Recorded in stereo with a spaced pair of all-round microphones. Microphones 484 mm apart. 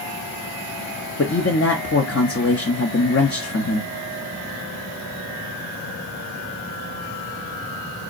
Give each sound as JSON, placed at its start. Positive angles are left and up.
{"t": 1.2, "sound": "a man speaking", "side_deg": 30, "distance_m": 0.6}